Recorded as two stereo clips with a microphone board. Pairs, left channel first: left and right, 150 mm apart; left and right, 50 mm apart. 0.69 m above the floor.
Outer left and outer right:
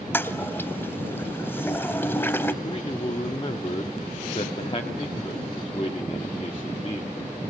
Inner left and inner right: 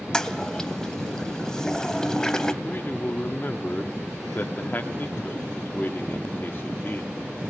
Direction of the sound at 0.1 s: 15° left (ahead or behind).